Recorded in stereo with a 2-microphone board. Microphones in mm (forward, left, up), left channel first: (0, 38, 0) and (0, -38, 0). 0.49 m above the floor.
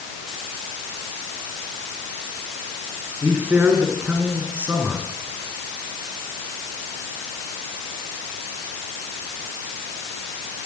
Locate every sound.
3.2 s a man speaking: 20° right (ahead or behind), 7 m